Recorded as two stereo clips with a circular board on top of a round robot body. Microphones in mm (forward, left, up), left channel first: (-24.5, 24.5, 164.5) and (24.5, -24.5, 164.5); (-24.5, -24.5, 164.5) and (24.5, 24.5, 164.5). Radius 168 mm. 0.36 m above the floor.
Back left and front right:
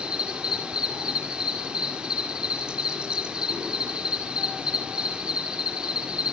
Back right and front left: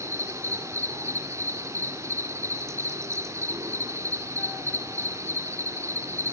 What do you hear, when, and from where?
0.0 s an insect: 25° left, 2 m